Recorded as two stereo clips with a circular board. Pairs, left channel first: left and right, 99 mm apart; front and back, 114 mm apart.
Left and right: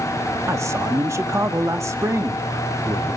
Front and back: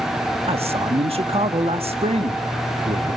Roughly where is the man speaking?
Behind right.